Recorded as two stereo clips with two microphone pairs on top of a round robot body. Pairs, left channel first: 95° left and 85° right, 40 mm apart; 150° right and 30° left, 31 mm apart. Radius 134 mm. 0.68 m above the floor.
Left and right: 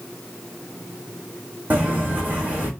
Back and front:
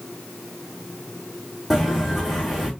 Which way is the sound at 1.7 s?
40° right.